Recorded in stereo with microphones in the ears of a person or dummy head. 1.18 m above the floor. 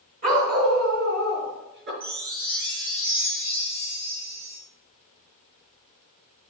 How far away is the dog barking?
About 2.5 m.